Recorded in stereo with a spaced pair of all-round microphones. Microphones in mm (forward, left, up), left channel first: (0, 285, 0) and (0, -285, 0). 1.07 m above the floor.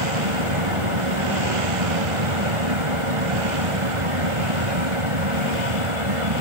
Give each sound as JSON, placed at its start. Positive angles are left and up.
{"t": 0.0, "sound": "a fan", "side_deg": -60}